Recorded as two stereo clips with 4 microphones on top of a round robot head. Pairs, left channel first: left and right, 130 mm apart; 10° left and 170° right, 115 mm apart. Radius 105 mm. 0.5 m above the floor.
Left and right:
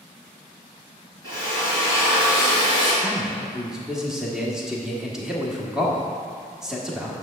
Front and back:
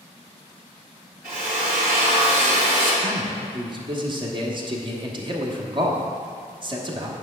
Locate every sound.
1.2 s a drill: 155° right, 2.5 m
3.0 s a man speaking: 175° right, 1.4 m